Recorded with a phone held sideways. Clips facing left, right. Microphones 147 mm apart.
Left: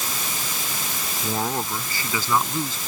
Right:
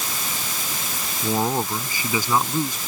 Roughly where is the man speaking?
Centre.